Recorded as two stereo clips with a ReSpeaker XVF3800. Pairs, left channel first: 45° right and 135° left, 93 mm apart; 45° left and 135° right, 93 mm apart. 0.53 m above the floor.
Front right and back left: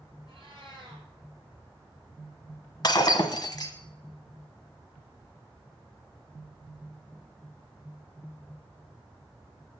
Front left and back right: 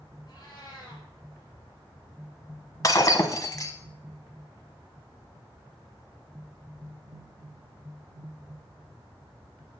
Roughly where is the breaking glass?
Ahead.